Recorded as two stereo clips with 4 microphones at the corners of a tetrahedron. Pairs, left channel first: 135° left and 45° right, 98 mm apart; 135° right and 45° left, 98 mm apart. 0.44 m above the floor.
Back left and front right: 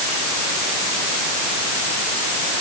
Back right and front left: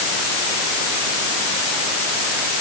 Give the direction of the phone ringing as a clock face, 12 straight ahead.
I don't hear a phone ringing.